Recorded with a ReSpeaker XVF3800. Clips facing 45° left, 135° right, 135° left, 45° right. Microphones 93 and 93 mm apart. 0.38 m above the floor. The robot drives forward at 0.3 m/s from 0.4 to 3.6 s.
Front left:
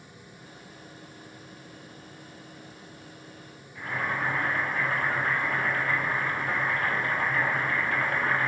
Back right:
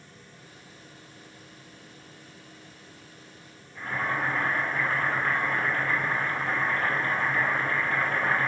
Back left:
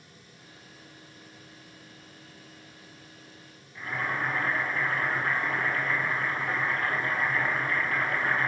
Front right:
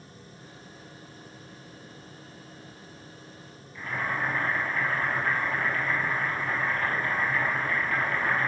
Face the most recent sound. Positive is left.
turn(degrees=-165)